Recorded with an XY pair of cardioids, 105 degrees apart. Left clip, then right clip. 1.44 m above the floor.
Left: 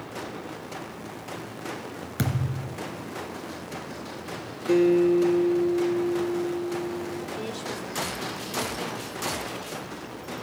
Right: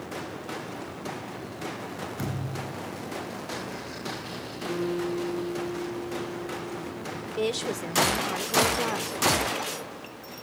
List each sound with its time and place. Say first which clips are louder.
2.2 s a thud: left 2 dB; 65° left, 3.5 m
4.7 s a guitar: left 10 dB; 65° left, 4 m
7.4 s a woman speaking: right 5 dB; 70° right, 1.4 m